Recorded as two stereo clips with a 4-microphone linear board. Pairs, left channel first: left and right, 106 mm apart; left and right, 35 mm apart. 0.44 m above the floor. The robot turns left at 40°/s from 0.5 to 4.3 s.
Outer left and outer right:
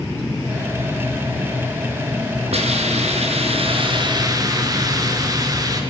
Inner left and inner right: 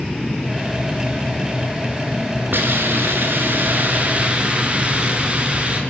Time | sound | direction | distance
2.5 | a hiss | 75° right | 3.5 m